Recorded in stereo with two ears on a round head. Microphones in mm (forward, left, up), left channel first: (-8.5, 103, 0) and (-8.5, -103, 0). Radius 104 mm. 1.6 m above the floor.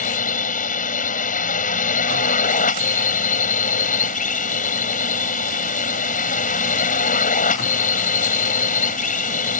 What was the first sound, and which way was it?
A drone, 35° left (ahead or behind).